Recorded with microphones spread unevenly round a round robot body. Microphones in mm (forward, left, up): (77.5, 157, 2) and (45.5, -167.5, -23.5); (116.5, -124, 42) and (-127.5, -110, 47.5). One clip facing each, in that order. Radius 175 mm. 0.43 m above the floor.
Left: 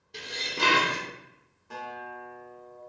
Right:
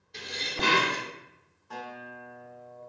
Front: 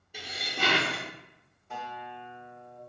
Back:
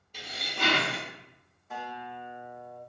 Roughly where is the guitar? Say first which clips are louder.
Left 1 dB, back 1 dB; left.